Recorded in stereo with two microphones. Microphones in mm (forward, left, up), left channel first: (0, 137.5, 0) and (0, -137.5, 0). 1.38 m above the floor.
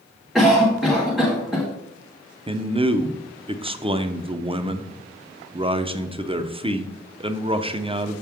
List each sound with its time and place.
0.3 s a cough: centre (ahead or behind), 1.2 m
2.5 s a man speaking: 20° right (ahead or behind), 0.6 m